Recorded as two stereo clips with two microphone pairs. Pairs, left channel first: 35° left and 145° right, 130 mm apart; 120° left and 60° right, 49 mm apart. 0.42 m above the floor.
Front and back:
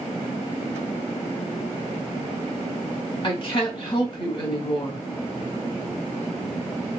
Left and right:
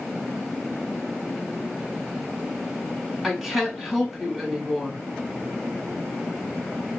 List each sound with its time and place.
3.2 s a woman speaking: 15° left, 1.0 m